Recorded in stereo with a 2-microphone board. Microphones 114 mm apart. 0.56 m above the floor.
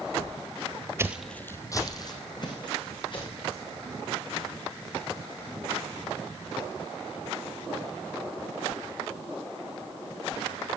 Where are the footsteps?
25° right (ahead or behind), 0.6 m; by 3.6 s 45° left (ahead or behind), 4 m.